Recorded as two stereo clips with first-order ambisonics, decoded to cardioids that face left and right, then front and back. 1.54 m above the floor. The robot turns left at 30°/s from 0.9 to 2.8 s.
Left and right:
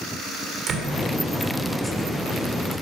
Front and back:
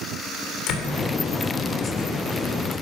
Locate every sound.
0.7 s a door slam: 35° right, 3 m